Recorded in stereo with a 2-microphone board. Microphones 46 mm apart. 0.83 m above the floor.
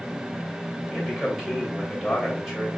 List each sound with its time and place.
0.9 s a man speaking: centre (ahead or behind), 5.5 m